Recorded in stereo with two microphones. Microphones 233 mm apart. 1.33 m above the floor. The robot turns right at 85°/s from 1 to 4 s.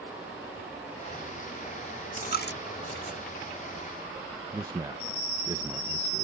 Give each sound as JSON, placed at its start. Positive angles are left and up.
{"t": 2.2, "sound": "a dropped coin", "side_deg": 30}
{"t": 4.5, "sound": "a man speaking", "side_deg": -15}